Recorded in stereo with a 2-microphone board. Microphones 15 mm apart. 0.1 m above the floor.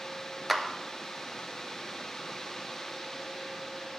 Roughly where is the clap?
Centre.